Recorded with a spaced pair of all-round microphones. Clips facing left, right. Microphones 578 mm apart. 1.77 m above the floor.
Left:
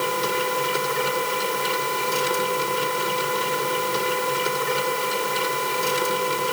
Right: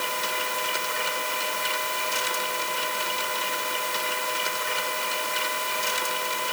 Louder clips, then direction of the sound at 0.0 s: Left 10 dB; 80° left.